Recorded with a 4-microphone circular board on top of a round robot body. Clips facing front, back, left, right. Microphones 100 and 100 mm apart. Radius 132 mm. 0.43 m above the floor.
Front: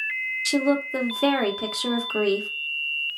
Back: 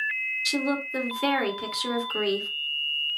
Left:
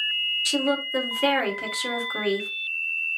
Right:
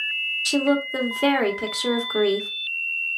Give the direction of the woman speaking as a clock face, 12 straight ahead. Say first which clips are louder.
Front 6 dB, right 4 dB; 1 o'clock.